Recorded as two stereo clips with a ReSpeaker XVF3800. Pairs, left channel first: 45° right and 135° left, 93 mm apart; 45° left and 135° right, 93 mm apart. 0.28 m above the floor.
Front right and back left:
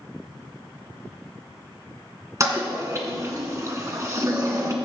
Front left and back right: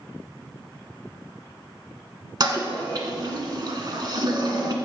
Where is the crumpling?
I don't hear crumpling.